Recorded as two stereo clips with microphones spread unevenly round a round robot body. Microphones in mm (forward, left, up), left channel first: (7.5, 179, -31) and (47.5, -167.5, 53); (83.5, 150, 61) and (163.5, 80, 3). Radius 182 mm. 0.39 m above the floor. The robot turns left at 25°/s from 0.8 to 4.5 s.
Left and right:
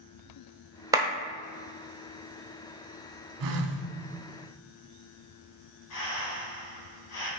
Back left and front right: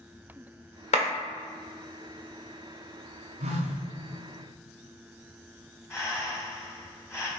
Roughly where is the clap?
Behind.